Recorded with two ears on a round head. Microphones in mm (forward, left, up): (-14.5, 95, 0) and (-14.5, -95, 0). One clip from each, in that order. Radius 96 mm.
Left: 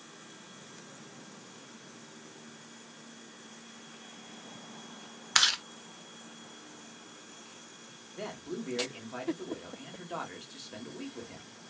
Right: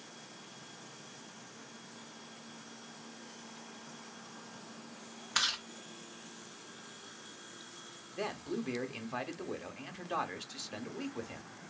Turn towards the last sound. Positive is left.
turn(degrees=-25)  # may be behind; listen again after turning